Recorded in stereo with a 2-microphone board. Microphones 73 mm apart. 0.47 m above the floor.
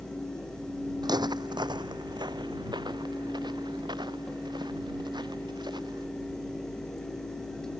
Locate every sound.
1.0 s footsteps: 70° right (ahead or behind); by 6.1 s 75° right (ahead or behind)